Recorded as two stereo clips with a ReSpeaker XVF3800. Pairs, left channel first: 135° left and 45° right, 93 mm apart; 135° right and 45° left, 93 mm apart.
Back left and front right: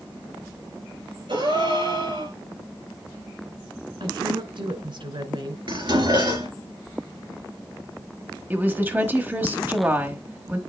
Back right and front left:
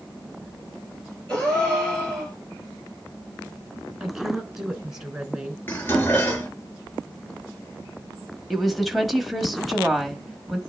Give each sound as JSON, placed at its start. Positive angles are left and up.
{"t": 1.3, "sound": "a gasp", "azimuth_deg": -55, "distance_m": 5.0}
{"t": 4.0, "sound": "a woman speaking", "azimuth_deg": -40, "distance_m": 2.5}
{"t": 5.7, "sound": "dishes clattering", "azimuth_deg": -70, "distance_m": 3.0}
{"t": 8.5, "sound": "a woman speaking", "azimuth_deg": -45, "distance_m": 1.2}